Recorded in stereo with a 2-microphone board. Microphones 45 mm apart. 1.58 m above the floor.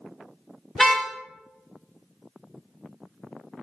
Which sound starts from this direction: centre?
A car horn, at 0.8 s.